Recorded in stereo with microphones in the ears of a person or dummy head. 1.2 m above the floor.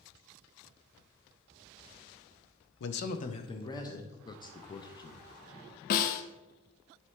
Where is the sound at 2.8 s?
65° left (ahead or behind), 0.6 m; by 4.2 s 15° left (ahead or behind), 1.5 m.